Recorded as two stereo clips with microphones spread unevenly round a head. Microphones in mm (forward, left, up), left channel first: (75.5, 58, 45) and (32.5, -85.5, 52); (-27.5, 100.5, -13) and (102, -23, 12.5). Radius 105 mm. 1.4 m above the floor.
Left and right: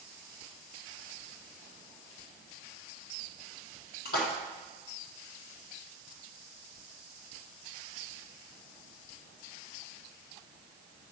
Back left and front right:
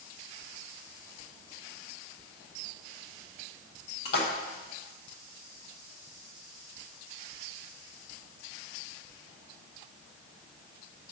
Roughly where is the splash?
Left.